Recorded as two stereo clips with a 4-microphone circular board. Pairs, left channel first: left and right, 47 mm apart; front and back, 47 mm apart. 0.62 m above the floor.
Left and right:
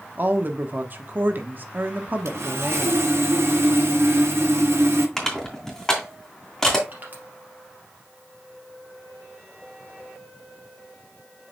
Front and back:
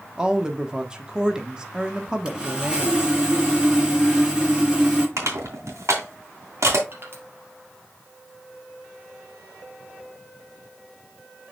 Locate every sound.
0.2 s a woman speaking: 115° right, 1.1 m
2.2 s sawing: 110° right, 2.5 m
5.2 s crushing: 165° left, 2.5 m
6.9 s crushing: 140° right, 3 m